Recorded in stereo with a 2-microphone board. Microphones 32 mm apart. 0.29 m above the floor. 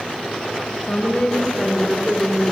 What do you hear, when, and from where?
0.9 s a woman speaking: 35° left (ahead or behind), 5 m